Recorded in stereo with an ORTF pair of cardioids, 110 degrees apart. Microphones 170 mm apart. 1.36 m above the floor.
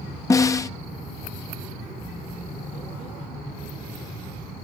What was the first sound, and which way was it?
A snare drum, 20° left.